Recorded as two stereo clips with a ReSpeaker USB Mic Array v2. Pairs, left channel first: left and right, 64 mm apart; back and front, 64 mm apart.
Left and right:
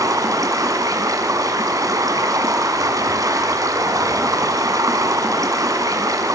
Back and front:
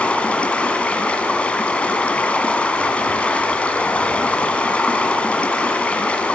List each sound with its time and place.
0.0 s running water: 110° right, 1.7 m